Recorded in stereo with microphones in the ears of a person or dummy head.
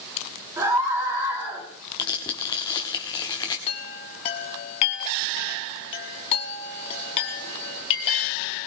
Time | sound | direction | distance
0.6 | a scream | 15° right (ahead or behind) | 5 m
2.0 | tearing paper | 20° left (ahead or behind) | 1.2 m
3.7 | a chime | 30° left (ahead or behind) | 1.1 m